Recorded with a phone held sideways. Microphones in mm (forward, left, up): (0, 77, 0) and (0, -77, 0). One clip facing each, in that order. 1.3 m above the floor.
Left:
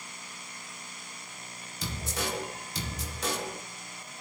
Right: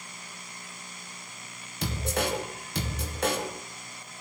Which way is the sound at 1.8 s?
65° right (ahead or behind).